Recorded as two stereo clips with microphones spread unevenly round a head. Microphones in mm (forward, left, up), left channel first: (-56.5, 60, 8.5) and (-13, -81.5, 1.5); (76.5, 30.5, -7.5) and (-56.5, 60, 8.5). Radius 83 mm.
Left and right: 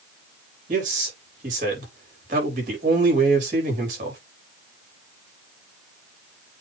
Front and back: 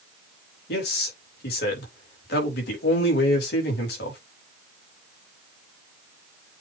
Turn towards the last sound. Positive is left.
turn(degrees=-25)